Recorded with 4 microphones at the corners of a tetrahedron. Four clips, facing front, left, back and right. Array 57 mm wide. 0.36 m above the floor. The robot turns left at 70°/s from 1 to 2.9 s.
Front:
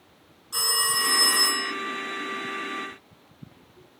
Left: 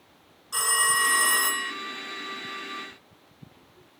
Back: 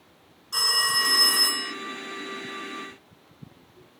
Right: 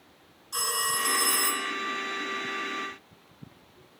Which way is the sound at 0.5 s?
120° left.